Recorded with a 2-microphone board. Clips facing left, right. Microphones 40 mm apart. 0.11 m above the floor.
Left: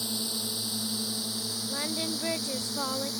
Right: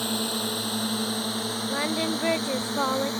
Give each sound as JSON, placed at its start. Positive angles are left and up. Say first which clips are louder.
{"t": 0.0, "sound": "a drone", "louder": "right 7 dB", "side_deg": -50}
{"t": 1.7, "sound": "singing", "louder": "right 6 dB", "side_deg": -30}